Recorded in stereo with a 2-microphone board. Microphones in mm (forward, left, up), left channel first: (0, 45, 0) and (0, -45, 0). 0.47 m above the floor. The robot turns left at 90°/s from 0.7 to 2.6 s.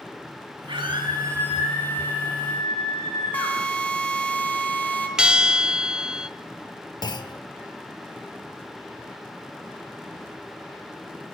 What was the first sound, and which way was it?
A scream, 90° right.